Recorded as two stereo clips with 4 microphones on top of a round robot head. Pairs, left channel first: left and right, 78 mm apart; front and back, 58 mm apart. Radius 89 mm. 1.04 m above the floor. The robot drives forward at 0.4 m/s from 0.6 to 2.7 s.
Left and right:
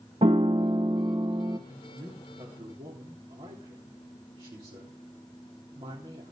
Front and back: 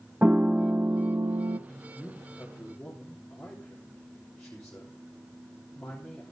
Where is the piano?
110° right, 0.5 m; by 1.6 s 145° right, 0.7 m.